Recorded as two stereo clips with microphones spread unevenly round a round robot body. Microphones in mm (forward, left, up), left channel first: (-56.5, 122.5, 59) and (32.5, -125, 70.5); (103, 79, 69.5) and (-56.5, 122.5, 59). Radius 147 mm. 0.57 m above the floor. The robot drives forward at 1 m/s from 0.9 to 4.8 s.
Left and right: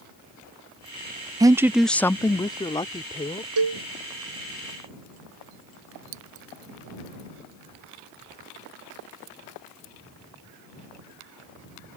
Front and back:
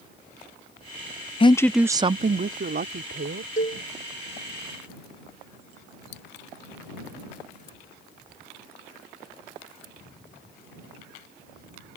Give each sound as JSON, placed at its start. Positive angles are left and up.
{"t": 1.4, "sound": "a woman speaking", "azimuth_deg": -5}
{"t": 3.6, "sound": "a cowbell", "azimuth_deg": -75}
{"t": 6.1, "sound": "scissors", "azimuth_deg": -50}